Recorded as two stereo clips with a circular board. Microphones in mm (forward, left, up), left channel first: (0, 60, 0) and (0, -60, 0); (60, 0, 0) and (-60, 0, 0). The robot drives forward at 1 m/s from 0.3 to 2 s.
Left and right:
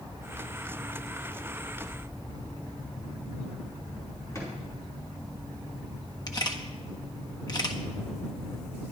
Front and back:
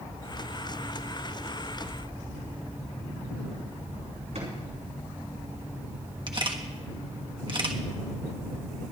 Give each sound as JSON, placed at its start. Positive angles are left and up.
{"t": 4.3, "sound": "a drawer", "azimuth_deg": 155, "distance_m": 4.5}
{"t": 6.3, "sound": "a camera shutter", "azimuth_deg": 140, "distance_m": 1.2}